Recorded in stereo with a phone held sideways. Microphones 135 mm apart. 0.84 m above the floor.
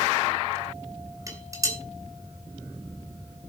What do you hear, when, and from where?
1.3 s dishes clattering: 25° right (ahead or behind), 3 m